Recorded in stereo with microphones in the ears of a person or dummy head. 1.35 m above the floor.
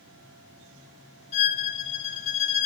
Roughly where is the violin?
Left.